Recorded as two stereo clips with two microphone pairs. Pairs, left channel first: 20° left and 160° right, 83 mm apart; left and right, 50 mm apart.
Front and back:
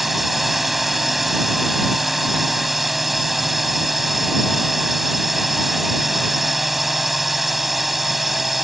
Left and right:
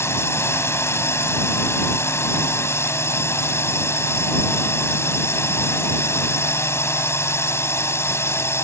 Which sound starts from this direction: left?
A drone, at 0.0 s.